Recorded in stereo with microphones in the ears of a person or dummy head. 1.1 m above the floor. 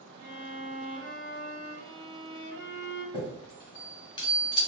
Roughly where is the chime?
Centre.